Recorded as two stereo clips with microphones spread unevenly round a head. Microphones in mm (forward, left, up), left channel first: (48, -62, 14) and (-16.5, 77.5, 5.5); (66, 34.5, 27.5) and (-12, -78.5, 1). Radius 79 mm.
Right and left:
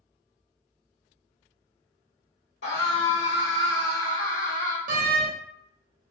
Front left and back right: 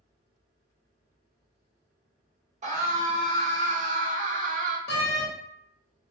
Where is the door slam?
75° left, 1.0 m.